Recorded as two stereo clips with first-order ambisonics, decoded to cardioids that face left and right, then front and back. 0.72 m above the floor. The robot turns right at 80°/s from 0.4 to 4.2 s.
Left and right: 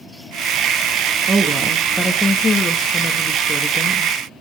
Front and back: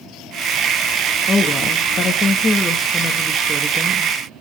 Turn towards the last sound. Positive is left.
turn(degrees=175)